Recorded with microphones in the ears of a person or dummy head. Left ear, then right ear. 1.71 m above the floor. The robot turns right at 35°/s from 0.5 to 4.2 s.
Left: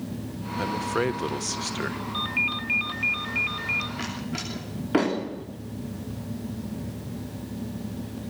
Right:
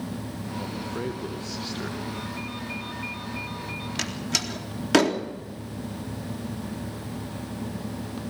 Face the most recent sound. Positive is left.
turn(degrees=-85)